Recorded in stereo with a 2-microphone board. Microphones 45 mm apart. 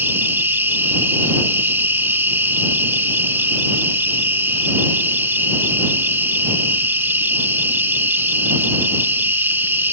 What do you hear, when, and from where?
0.0 s an insect: 55° right (ahead or behind)